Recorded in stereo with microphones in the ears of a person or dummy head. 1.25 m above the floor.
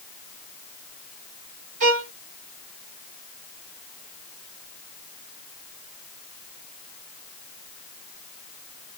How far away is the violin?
About 1.6 m.